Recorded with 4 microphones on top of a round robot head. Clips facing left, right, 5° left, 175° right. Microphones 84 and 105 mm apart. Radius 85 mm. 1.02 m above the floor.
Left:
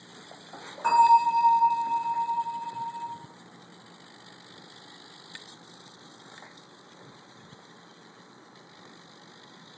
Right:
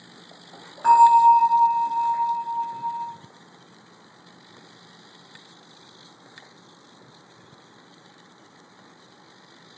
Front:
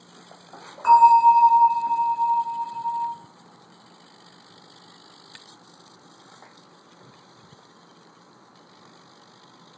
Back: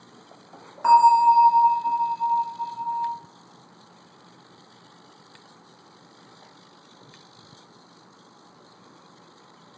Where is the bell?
155° right, 1.2 m.